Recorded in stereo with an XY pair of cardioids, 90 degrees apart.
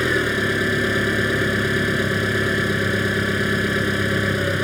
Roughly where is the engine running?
Ahead.